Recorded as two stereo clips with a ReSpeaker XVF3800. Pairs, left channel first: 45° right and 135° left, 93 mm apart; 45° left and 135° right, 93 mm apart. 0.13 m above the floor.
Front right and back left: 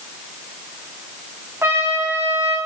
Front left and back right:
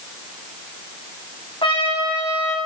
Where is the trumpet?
70° left, 4 m.